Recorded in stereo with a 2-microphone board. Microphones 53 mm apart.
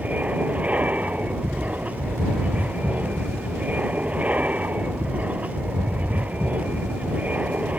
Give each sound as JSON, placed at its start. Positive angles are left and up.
{"t": 0.0, "sound": "an aircraft", "side_deg": -30}